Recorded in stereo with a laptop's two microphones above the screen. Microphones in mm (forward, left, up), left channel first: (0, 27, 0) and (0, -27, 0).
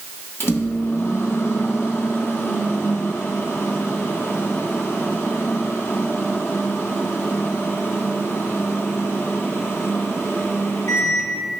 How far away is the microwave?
About 1.0 m.